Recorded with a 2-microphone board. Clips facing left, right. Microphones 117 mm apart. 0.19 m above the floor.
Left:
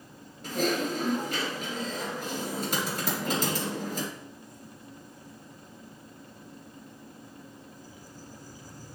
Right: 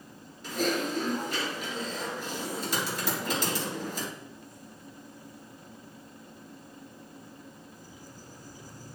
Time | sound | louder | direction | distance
0.4 | typing on a keyboard | left 1 dB | 55° left (ahead or behind) | 3.5 m